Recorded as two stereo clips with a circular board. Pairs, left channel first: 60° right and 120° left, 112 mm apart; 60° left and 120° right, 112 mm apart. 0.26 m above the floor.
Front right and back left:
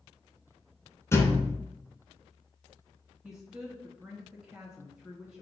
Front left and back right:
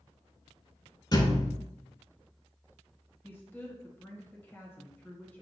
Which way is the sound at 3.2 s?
45° left.